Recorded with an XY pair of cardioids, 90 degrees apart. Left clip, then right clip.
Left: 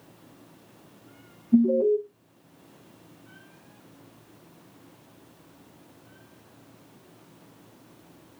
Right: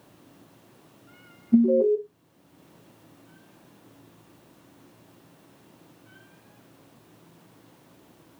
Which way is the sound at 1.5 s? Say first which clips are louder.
Right 1 dB; 30° right.